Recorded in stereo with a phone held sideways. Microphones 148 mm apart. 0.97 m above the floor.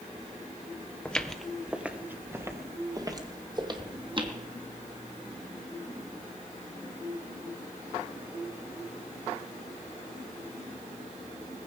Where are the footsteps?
5° left (ahead or behind), 1.2 m; by 4.3 s 35° right (ahead or behind), 2 m.